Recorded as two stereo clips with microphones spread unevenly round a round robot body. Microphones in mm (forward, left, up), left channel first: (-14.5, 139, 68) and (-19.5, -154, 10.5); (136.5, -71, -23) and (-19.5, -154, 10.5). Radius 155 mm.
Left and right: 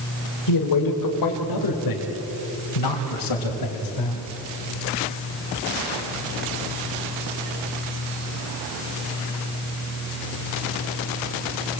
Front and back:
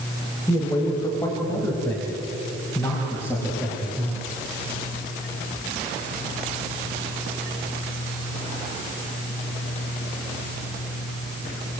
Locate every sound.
0.5 s a man speaking: 105° left, 3 m; by 4.2 s 110° left, 5 m